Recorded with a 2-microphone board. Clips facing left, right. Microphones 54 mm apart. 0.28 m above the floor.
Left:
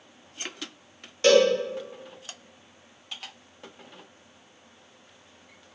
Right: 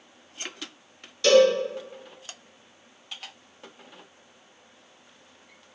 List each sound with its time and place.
1.2 s a cowbell: 35° left (ahead or behind), 1.1 m